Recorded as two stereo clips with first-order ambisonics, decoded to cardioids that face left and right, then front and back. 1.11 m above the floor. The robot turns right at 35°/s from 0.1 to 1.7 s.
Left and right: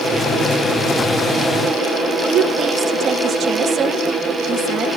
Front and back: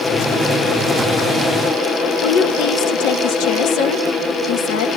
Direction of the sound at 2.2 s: 25° right.